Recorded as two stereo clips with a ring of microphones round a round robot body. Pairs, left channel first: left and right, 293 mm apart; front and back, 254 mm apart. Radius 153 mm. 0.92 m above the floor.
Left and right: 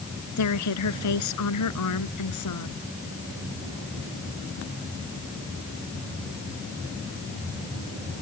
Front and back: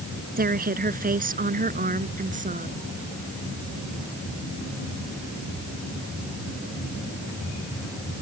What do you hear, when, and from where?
0.4 s a woman speaking: 125° left; by 2.8 s 120° left